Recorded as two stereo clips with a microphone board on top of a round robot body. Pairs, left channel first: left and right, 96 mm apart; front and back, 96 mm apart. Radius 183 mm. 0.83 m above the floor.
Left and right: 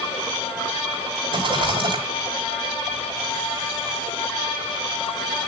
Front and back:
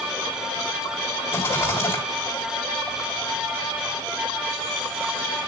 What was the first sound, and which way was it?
A rattle, 70° right.